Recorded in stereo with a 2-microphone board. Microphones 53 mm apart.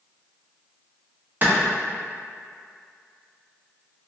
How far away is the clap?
About 0.8 m.